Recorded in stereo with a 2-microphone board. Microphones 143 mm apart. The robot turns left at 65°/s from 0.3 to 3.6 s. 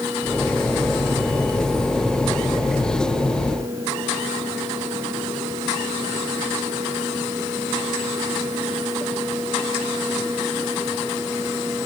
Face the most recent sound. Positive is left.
No sound to turn to.